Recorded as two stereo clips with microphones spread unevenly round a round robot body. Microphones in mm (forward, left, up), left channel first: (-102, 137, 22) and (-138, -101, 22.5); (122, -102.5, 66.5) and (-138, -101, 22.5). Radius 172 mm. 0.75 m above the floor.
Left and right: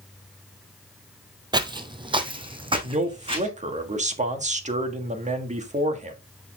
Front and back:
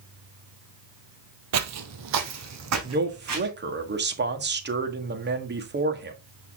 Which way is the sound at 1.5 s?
165° right.